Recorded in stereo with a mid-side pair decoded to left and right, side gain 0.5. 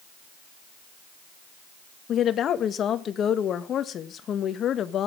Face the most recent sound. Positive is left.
turn(degrees=55)